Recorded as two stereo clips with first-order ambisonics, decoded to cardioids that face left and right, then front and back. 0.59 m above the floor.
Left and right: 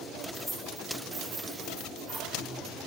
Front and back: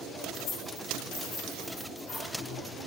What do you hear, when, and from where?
0.3 s keys jangling: straight ahead, 0.9 m; by 2.3 s 60° right, 1.8 m